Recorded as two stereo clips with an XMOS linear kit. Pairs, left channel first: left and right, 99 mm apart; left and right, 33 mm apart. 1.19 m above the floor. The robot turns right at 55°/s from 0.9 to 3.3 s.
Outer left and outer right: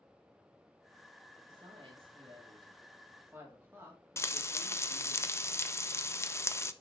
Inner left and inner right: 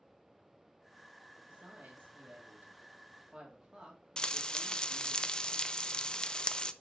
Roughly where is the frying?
Left.